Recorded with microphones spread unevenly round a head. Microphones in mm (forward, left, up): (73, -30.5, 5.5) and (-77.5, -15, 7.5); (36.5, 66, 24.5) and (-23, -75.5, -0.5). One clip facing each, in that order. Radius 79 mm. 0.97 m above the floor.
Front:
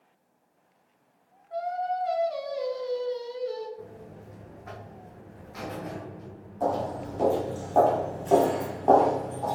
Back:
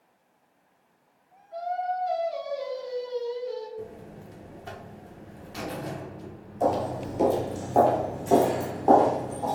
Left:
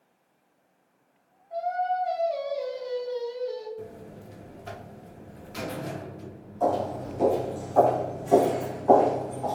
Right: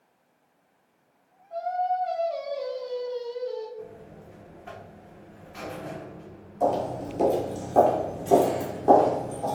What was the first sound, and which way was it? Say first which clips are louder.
Singing: even, even; 5° right.